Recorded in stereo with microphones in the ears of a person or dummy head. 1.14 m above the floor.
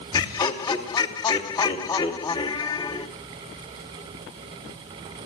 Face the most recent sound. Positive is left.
turn(degrees=20)  # may be behind; listen again after turning